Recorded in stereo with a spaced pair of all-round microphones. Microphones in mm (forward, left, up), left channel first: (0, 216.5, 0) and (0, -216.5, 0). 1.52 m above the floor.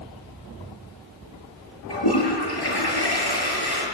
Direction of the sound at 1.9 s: 60° left (ahead or behind).